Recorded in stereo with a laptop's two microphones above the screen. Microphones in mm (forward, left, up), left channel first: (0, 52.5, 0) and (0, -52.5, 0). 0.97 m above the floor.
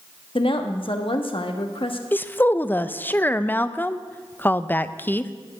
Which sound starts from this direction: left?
A woman speaking, at 0.3 s.